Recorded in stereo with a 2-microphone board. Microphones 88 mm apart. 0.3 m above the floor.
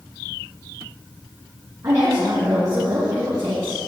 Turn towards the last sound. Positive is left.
turn(degrees=-40)  # may be behind; listen again after turning